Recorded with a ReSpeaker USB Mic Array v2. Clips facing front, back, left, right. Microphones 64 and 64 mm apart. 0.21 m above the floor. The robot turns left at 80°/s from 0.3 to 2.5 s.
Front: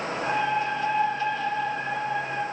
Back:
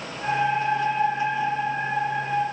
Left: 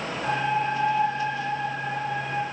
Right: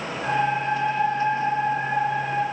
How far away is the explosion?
No explosion in this recording.